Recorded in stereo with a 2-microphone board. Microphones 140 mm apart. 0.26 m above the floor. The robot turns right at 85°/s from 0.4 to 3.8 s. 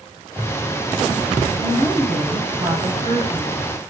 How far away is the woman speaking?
About 1.1 m.